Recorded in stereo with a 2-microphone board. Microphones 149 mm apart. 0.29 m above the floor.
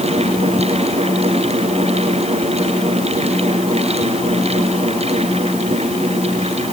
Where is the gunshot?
No gunshot in this recording.